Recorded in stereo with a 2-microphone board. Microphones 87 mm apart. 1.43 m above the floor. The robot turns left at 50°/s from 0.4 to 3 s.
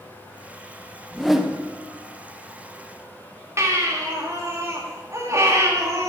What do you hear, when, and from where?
1.1 s a whoosh: 10° left (ahead or behind), 1.0 m; by 1.6 s 15° right (ahead or behind), 1.0 m
3.6 s a baby crying: 35° right (ahead or behind), 2 m